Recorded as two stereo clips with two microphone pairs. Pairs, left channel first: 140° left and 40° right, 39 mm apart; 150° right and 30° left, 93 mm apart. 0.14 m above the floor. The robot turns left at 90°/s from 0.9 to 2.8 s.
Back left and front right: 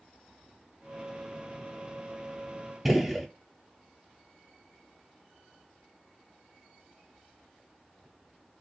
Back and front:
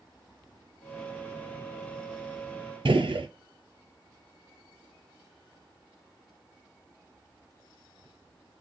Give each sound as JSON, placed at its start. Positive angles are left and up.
{"t": 2.9, "sound": "a gunshot", "azimuth_deg": 45, "distance_m": 0.5}